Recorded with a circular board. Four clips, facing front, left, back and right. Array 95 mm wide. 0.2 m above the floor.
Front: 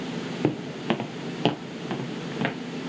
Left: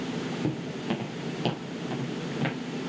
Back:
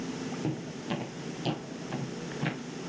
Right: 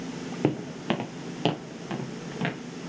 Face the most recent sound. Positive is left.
turn(degrees=-15)